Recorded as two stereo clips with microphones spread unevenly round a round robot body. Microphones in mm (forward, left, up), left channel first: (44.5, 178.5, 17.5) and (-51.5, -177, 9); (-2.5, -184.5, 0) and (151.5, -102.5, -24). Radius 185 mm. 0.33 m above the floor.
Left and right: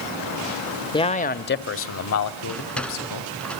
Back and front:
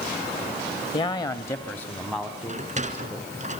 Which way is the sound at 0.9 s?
145° left.